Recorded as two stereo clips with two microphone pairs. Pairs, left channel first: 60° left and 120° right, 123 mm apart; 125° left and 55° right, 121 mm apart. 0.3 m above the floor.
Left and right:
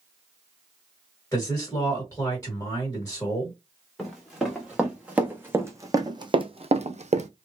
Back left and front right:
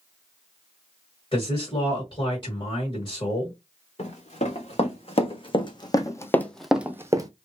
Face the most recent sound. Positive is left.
turn(degrees=-110)